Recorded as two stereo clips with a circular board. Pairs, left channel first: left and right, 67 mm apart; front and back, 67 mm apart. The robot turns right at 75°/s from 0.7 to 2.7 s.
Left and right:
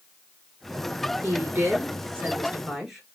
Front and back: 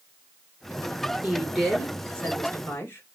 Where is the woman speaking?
120° right, 1.6 m; by 3.1 s 10° right, 1.6 m.